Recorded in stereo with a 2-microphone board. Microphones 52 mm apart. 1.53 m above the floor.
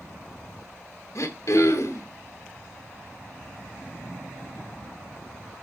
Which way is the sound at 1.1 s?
65° left (ahead or behind).